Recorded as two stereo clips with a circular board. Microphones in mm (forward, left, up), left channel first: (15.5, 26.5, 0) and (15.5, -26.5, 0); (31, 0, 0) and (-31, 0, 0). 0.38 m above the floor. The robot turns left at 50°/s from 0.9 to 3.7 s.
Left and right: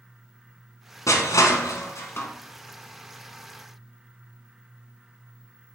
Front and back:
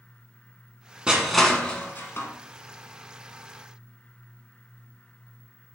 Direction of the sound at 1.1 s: 105° left.